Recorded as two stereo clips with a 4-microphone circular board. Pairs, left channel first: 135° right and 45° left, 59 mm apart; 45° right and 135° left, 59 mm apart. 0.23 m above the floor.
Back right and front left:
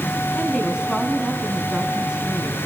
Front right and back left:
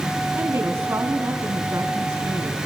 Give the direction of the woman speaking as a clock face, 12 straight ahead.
8 o'clock.